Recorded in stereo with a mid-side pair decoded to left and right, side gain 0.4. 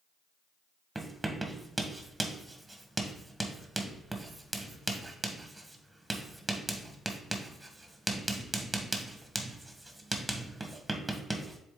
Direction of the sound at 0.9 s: 20° right.